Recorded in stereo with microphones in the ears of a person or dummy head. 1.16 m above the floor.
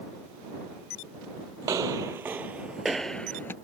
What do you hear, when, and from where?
1.6 s footsteps: 20° right (ahead or behind); by 3.5 s 10° left (ahead or behind)